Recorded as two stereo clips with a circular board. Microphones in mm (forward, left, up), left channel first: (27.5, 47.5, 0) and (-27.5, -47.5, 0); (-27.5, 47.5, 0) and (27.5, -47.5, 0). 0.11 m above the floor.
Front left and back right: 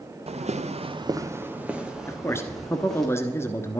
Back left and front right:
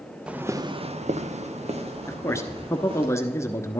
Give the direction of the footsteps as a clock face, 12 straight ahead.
5 o'clock.